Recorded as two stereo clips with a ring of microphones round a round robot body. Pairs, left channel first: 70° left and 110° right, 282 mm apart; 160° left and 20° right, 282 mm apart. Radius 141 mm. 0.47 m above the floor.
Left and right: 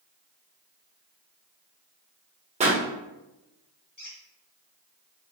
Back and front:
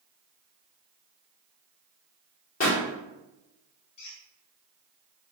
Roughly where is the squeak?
Behind left.